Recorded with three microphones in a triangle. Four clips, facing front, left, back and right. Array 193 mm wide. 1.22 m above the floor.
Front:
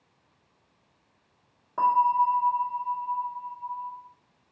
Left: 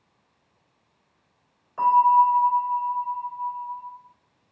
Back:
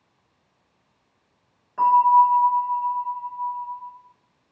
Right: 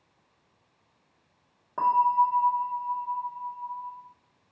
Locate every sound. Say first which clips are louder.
1.8 s a bell: left 5 dB, back 7 dB; 65° right, 0.9 m